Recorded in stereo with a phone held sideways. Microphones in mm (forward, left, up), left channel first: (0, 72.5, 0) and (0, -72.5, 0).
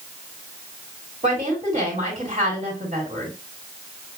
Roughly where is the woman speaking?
Right.